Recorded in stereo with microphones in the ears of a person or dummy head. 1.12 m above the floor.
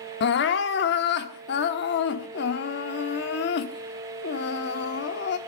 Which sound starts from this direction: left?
Crying, at 0.2 s.